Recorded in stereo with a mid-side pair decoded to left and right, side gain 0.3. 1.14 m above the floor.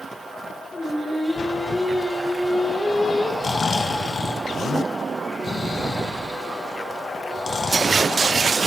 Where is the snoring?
50° left, 0.9 m.